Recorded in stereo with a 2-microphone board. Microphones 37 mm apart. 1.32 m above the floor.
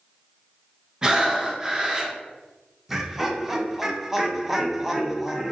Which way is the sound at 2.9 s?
5° right (ahead or behind).